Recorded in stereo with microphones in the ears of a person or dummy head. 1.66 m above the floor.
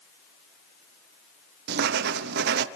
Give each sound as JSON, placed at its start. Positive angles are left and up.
{"t": 1.7, "sound": "writing", "side_deg": -60, "distance_m": 0.9}